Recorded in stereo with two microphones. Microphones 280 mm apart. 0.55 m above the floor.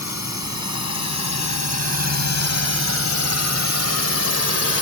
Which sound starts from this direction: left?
A drone, at 0.0 s.